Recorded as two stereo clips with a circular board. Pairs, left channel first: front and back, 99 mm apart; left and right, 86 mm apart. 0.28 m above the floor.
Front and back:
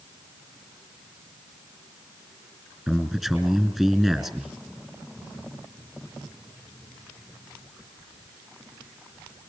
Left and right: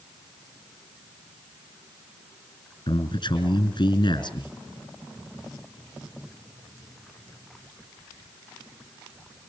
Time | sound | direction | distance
2.9 | a man speaking | 90° left | 4 m